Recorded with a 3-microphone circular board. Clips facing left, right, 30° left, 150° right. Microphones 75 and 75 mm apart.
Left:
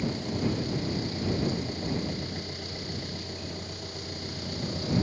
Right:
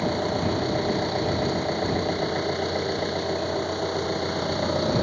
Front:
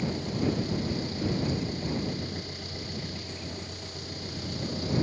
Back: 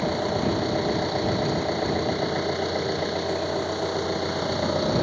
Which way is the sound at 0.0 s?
120° right.